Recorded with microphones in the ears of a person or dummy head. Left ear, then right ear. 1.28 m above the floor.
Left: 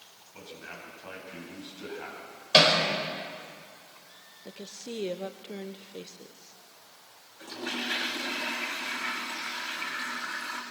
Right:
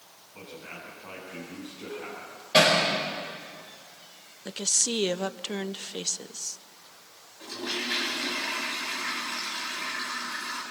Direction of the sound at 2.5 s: 45° left (ahead or behind).